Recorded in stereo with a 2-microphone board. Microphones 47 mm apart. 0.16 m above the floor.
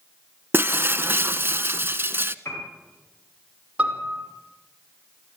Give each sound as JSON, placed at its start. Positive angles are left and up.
{"t": 0.5, "sound": "breaking glass", "side_deg": -45, "distance_m": 0.8}
{"t": 2.5, "sound": "a piano", "side_deg": 60, "distance_m": 8.5}
{"t": 3.8, "sound": "a piano", "side_deg": -25, "distance_m": 4.5}